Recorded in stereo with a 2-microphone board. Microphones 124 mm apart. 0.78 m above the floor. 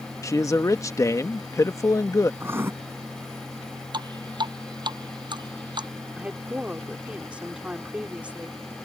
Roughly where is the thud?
I don't hear a thud.